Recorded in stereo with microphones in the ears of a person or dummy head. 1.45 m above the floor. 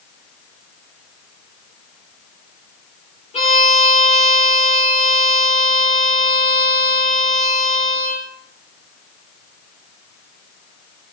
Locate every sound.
3.3 s a violin: 35° left (ahead or behind), 5.5 m